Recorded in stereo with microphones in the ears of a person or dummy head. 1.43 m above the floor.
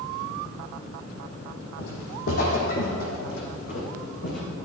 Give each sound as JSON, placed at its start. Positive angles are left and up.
{"t": 1.8, "sound": "footsteps", "side_deg": 50, "distance_m": 2.5}